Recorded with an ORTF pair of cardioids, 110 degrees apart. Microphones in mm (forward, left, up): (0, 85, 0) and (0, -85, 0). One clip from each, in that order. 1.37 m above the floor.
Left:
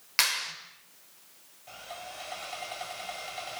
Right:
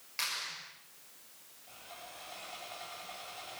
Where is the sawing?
55° left, 8 m.